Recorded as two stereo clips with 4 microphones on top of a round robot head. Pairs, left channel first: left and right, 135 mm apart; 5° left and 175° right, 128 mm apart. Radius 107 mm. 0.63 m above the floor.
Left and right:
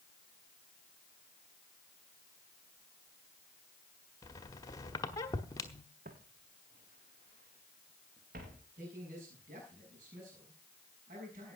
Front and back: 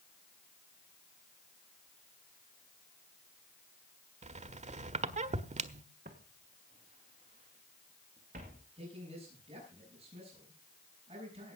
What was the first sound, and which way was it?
A squeak, 155° left.